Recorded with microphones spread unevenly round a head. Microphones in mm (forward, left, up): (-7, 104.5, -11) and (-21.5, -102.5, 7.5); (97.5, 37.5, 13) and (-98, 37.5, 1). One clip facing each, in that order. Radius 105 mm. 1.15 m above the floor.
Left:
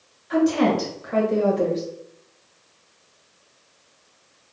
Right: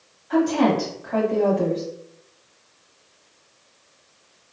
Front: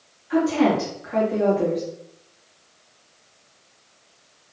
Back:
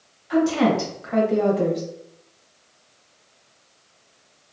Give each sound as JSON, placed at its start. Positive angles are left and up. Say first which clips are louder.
{"t": 0.3, "sound": "a woman speaking", "louder": "even, even", "azimuth_deg": 150, "distance_m": 1.0}